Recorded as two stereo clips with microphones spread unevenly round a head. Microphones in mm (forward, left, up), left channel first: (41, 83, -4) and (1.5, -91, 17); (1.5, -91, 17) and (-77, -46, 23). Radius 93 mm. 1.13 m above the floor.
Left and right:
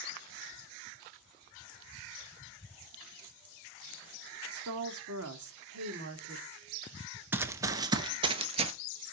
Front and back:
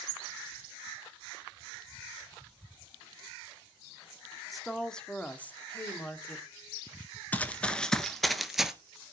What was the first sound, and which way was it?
A woman speaking, 120° right.